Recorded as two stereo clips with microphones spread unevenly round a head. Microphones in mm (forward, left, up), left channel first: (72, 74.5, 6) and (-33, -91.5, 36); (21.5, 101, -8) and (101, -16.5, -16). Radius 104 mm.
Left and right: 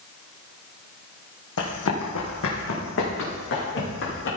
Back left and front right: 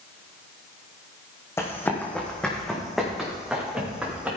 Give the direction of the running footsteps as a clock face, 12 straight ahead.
10 o'clock.